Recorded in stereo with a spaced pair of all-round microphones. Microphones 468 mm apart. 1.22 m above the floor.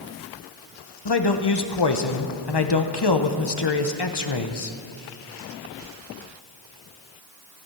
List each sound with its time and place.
1.1 s a man speaking: 55° left (ahead or behind), 1.0 m